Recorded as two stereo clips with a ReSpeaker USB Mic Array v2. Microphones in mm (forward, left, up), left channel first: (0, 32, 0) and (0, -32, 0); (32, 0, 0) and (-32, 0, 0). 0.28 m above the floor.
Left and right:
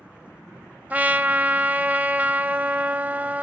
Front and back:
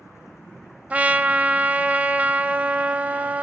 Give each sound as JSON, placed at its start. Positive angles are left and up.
{"t": 0.9, "sound": "a trumpet", "azimuth_deg": -130, "distance_m": 0.6}